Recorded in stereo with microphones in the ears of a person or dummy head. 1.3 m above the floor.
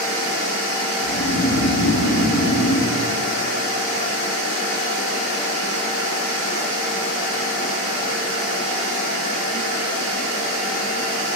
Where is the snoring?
60° left (ahead or behind), 3 m.